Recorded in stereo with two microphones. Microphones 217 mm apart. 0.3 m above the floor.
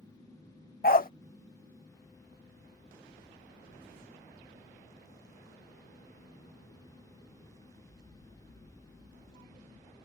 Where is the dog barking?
45° left (ahead or behind).